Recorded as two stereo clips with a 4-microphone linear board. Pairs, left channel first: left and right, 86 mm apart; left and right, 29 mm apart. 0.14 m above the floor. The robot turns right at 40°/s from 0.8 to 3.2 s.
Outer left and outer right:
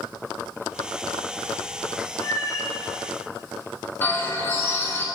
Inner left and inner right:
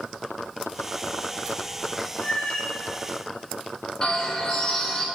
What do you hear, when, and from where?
2.2 s a cat meowing: 50° left (ahead or behind), 0.7 m; by 2.8 s 35° left (ahead or behind), 0.7 m
4.0 s a bird: 25° left (ahead or behind), 1.0 m